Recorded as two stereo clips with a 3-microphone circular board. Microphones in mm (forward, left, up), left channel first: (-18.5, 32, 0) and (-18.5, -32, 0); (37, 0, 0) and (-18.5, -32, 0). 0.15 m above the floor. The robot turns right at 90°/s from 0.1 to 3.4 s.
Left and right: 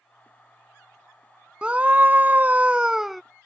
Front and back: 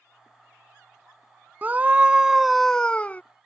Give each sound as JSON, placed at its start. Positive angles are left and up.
{"t": 1.6, "sound": "a scream", "azimuth_deg": -140}